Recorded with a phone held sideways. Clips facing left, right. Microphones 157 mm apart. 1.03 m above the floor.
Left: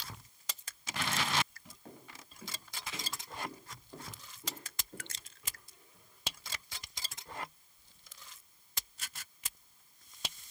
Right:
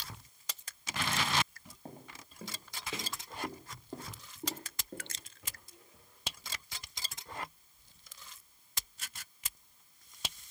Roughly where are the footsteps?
Right.